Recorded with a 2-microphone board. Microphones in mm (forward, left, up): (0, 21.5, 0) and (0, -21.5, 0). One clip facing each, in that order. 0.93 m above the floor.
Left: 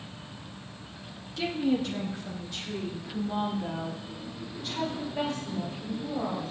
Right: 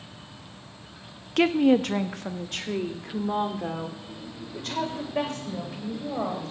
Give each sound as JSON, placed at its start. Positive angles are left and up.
{"t": 1.4, "sound": "a woman speaking", "side_deg": -65, "distance_m": 0.7}